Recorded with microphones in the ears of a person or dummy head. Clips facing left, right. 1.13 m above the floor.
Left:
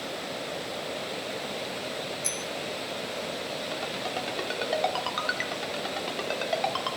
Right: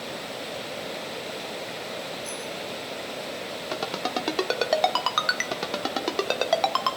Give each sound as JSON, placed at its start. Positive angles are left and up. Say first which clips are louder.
{"t": 2.2, "sound": "a bicycle bell", "louder": "right 1 dB", "side_deg": 80, "distance_m": 2.5}
{"t": 3.7, "sound": "a ringtone", "louder": "right 3 dB", "side_deg": -65, "distance_m": 1.6}